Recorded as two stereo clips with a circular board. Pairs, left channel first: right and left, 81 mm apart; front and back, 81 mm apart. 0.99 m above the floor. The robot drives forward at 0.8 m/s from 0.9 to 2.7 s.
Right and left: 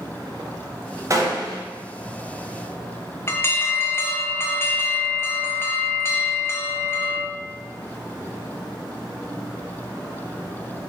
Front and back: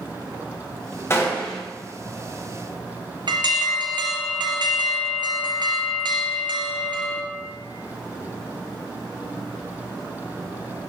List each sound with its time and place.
1.1 s a gunshot: 50° left, 0.8 m; by 1.6 s 90° left, 0.6 m
3.3 s an alarm: 150° right, 0.5 m